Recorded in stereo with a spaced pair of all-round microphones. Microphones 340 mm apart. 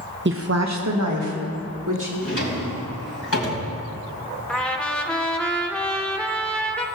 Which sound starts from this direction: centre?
A trumpet, at 4.5 s.